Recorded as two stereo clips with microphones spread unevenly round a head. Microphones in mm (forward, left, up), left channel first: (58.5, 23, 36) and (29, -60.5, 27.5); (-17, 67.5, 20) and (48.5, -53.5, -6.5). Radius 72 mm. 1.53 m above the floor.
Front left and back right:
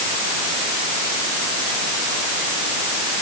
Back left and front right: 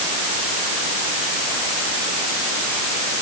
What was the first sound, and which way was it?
Only background noise.